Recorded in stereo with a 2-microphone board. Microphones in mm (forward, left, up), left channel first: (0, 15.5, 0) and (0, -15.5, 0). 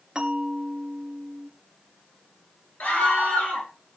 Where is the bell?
25° right (ahead or behind), 3.5 m.